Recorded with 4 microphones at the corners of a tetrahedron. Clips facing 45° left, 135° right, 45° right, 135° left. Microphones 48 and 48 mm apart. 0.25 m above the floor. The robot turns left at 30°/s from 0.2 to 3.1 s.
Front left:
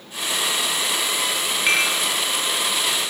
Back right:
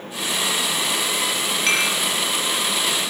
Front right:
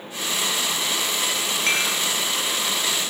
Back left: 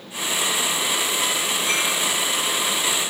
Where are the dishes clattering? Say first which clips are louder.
Front left 1 dB, front right 2 dB; 30° right, 3.5 m; by 1.9 s 40° right, 3.5 m.